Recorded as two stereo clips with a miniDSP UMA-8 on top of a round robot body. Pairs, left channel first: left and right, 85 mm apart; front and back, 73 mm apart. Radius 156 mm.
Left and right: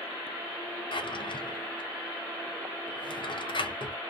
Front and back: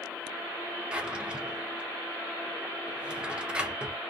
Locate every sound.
0.9 s a drawer: 105° left, 0.6 m